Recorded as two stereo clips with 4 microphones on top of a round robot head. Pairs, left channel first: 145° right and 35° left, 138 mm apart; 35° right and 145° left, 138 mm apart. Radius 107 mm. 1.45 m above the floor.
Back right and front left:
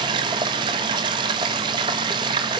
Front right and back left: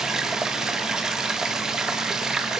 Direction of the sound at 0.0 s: 65° left.